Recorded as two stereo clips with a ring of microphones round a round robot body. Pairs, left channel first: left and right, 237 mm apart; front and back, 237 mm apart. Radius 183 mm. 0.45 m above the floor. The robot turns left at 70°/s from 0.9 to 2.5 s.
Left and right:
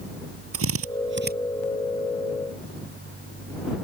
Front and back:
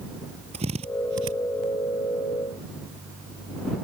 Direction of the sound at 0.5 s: 110° right.